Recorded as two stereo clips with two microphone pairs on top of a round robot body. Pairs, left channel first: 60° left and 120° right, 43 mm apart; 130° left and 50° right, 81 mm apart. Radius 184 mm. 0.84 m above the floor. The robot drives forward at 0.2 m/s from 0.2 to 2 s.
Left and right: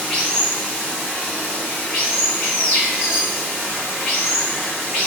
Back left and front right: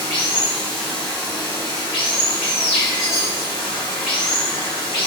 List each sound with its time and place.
0.0 s running water: 135° left, 1.3 m; by 5.1 s 145° left, 1.5 m
2.9 s a chime: 155° left, 1.7 m